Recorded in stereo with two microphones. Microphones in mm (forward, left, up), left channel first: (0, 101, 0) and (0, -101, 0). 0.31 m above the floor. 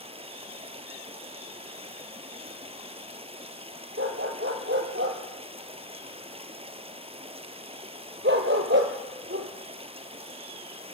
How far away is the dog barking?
About 1.8 m.